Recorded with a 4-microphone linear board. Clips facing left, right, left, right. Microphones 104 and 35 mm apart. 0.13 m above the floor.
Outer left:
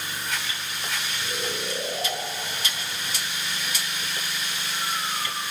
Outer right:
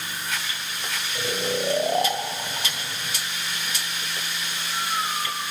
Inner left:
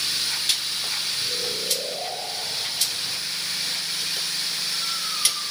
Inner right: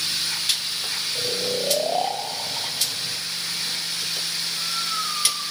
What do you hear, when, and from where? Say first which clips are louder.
1.1 s snoring: outer right 9 dB, inner right 3 dB; 55° right (ahead or behind), 3 m